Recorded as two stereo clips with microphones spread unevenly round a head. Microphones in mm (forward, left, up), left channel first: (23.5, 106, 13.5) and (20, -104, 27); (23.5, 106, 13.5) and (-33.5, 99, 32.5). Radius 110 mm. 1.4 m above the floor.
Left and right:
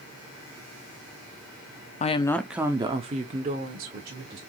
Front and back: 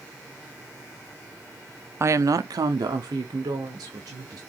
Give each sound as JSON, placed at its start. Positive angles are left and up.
{"t": 2.0, "sound": "a woman speaking", "azimuth_deg": 135, "distance_m": 0.6}